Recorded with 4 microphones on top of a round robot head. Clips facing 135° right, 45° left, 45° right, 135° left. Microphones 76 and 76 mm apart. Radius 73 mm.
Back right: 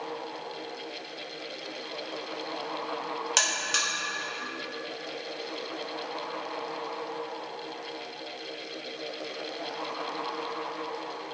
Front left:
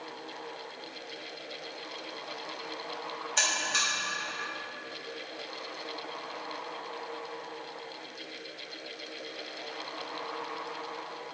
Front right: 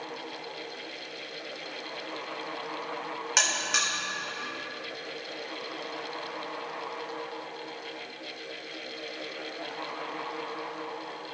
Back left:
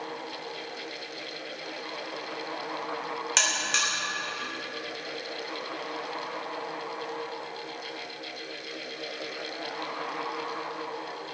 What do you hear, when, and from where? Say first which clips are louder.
3.4 s a buzzer: front left 2 dB, front right 1 dB; 125° right, 3 m